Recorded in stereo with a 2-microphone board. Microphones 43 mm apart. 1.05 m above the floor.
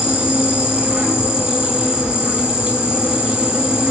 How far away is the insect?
About 3 m.